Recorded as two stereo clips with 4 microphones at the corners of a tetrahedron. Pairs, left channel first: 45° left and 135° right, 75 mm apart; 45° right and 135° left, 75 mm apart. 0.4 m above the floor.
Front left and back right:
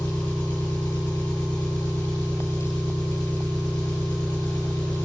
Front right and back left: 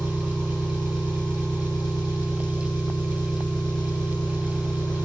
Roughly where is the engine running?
Ahead right.